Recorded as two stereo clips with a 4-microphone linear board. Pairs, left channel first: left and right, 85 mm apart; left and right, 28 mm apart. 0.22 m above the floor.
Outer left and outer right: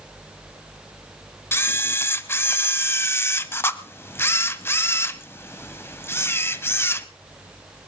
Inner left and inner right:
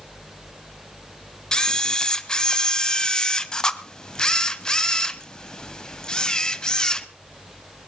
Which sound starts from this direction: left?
A camera shutter, at 1.5 s.